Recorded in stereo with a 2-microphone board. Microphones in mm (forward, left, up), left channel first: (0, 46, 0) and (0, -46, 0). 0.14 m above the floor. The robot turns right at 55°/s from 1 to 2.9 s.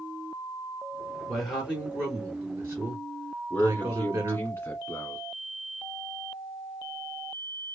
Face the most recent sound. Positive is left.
turn(degrees=25)  # may be behind; listen again after turning